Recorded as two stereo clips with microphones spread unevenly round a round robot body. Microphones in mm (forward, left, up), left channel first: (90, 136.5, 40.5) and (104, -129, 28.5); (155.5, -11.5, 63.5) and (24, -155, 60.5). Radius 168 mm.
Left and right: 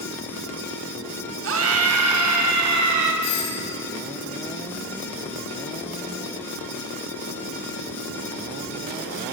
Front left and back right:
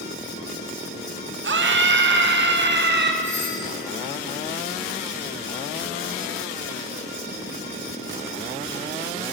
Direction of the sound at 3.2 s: 130° left.